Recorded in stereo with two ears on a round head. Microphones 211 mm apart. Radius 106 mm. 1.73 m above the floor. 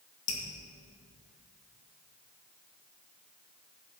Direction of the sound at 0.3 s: 60° left (ahead or behind).